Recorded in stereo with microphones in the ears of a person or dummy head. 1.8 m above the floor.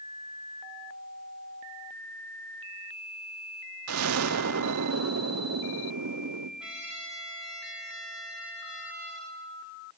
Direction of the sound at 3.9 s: 80° right.